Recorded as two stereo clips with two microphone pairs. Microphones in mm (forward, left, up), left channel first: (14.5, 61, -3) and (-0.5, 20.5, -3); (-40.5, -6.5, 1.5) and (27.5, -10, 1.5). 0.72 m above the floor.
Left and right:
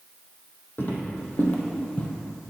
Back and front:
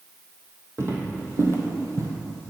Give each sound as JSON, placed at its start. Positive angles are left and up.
{"t": 0.8, "sound": "footsteps", "azimuth_deg": 45, "distance_m": 1.7}